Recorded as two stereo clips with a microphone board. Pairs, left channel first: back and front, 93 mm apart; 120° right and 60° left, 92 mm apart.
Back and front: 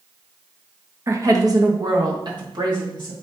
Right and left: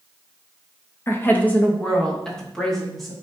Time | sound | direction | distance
1.1 | a woman speaking | 60° right | 0.9 m